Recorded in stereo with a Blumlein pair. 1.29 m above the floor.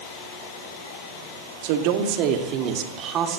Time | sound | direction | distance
1.6 | a woman speaking | 45° right | 2.5 m